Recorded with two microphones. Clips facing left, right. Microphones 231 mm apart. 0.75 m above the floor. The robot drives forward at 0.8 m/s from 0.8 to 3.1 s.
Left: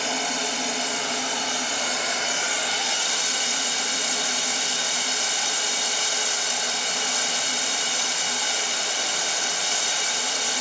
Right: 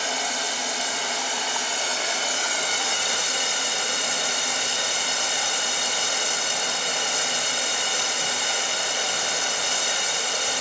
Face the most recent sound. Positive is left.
turn(degrees=-60)  # may be behind; listen again after turning